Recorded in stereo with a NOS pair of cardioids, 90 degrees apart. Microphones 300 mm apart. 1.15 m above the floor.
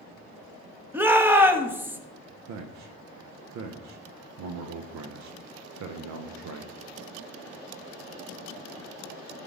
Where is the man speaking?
60° right, 0.7 m.